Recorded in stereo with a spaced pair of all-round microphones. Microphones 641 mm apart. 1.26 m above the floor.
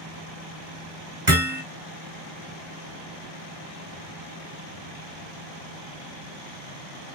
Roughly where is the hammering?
Right.